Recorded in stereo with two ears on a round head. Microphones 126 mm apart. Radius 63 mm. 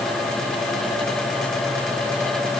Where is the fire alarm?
No fire alarm in this recording.